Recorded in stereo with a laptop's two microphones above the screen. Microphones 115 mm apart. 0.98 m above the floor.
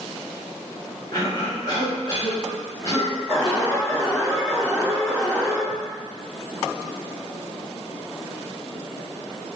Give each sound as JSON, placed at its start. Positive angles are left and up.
{"t": 1.1, "sound": "a cough", "side_deg": 35, "distance_m": 1.1}
{"t": 3.3, "sound": "an alarm", "side_deg": -20, "distance_m": 1.1}